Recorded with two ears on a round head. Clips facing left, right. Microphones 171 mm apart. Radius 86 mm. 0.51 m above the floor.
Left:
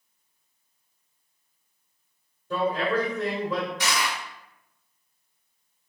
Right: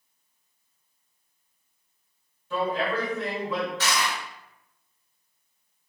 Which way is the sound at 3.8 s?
15° left (ahead or behind).